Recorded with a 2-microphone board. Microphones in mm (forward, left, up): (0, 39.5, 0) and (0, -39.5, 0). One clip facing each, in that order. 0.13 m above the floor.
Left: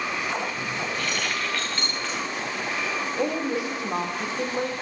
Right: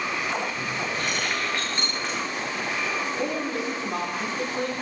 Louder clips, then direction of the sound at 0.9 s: Right 1 dB; 20° right (ahead or behind).